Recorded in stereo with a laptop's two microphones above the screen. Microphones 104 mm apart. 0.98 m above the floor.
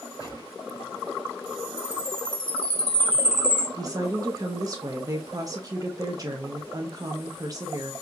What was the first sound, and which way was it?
A gunshot, 35° left (ahead or behind).